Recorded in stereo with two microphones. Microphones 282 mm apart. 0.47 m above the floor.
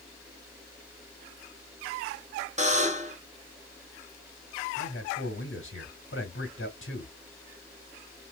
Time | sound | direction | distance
2.6 | a buzzer | 25° right (ahead or behind) | 0.8 m
4.8 | a man speaking | 45° left (ahead or behind) | 1.7 m